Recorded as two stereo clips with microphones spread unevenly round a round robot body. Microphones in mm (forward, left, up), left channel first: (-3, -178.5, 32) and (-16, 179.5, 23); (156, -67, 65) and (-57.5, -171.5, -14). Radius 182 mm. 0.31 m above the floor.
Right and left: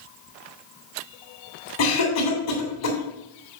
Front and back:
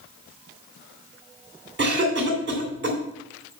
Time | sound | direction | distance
1.8 | a cough | 135° right | 2.5 m